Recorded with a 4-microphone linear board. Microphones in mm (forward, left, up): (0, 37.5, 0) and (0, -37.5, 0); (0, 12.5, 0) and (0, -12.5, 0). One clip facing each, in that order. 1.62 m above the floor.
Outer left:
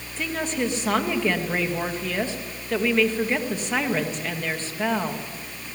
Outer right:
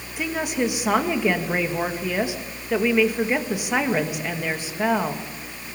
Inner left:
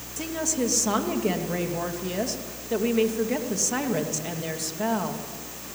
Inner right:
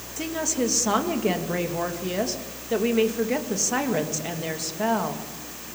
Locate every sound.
0.2 s a woman speaking: 15° right (ahead or behind), 2 m